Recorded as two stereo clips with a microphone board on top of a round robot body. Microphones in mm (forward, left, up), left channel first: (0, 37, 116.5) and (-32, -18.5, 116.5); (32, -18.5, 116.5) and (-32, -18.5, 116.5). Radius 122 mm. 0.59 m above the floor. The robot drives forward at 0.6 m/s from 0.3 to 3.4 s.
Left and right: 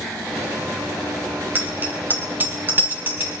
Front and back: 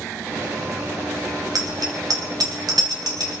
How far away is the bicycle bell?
About 3 m.